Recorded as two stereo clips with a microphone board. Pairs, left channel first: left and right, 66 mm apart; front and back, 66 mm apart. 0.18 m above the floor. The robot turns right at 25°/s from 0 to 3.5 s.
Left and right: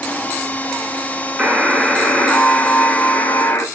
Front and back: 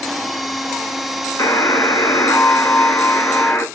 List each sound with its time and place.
1.4 s a buzzer: straight ahead, 0.9 m; by 3.7 s 50° left, 0.9 m